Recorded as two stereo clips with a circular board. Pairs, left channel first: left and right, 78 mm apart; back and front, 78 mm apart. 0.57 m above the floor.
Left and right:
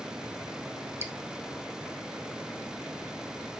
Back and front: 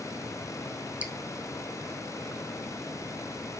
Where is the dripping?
55° right, 1.5 m.